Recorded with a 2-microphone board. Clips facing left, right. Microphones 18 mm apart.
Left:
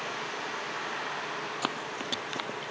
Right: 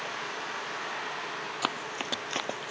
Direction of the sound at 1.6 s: 5° right (ahead or behind).